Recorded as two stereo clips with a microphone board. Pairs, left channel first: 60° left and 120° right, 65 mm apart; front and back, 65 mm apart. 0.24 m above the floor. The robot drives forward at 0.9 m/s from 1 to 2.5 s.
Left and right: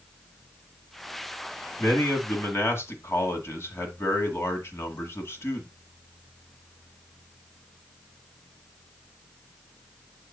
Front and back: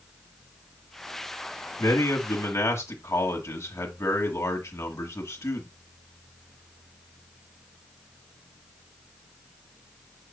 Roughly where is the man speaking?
Ahead.